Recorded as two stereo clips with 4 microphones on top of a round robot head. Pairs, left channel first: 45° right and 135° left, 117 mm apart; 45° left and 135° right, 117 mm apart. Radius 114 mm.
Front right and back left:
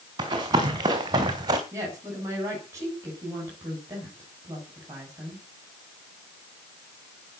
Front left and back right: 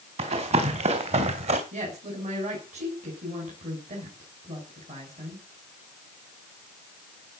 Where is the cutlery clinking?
No cutlery clinking in this recording.